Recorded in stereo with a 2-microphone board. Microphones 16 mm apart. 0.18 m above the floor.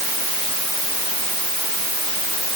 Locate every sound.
Only background noise.